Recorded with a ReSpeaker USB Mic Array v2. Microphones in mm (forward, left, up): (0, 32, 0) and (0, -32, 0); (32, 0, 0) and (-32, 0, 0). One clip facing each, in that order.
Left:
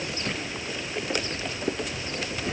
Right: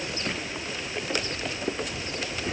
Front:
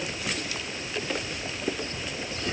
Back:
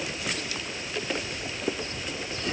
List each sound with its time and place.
Only background noise.